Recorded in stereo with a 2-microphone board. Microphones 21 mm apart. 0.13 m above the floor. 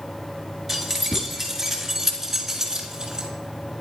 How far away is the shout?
No shout in this recording.